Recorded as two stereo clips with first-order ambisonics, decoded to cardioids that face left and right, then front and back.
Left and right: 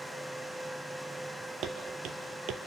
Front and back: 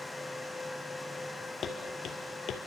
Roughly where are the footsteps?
Ahead right.